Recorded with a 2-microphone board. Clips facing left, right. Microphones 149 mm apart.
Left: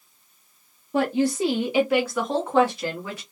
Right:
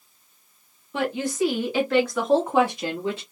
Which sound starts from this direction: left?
A woman speaking, at 0.9 s.